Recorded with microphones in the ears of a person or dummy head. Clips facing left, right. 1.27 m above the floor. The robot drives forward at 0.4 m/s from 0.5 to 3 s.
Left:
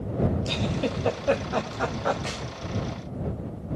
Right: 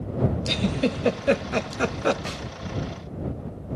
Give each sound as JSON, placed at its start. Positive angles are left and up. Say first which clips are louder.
{"t": 0.5, "sound": "a giggle", "louder": "right 3 dB", "side_deg": -20, "distance_m": 1.4}
{"t": 2.2, "sound": "a clap", "louder": "even", "side_deg": -15, "distance_m": 7.0}